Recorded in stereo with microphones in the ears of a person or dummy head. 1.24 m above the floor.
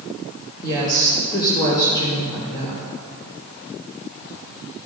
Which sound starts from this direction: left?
A woman speaking, at 0.6 s.